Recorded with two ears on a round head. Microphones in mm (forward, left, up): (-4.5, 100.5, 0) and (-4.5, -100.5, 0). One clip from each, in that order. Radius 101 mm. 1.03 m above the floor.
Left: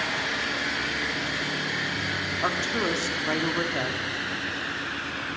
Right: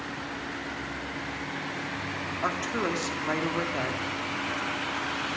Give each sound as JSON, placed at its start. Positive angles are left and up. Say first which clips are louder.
{"t": 2.4, "sound": "a woman speaking", "louder": "left 2 dB", "side_deg": 0, "distance_m": 3.0}